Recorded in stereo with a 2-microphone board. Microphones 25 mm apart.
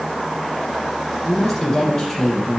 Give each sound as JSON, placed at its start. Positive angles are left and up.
{"t": 1.2, "sound": "a woman speaking", "side_deg": 5, "distance_m": 4.0}